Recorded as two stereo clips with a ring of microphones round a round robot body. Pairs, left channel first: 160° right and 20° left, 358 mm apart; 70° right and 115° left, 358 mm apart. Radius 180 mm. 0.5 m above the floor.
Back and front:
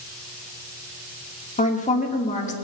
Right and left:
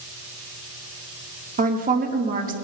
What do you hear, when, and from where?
1.6 s a woman speaking: 155° left, 1.3 m